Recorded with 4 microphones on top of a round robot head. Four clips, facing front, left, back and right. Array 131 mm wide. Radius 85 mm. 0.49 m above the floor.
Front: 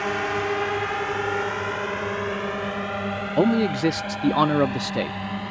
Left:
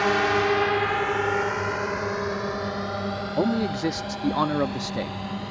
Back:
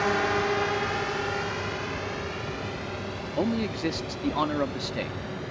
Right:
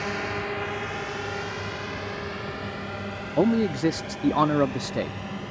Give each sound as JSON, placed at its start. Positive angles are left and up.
{"t": 0.0, "sound": "a drone", "azimuth_deg": 95}
{"t": 3.4, "sound": "a man speaking", "azimuth_deg": -20}